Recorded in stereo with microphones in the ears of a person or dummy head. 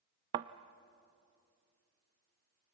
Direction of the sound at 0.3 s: 20° right (ahead or behind).